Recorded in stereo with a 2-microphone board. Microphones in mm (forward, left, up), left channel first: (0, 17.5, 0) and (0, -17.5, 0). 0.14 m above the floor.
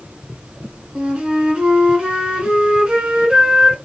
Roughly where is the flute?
Right.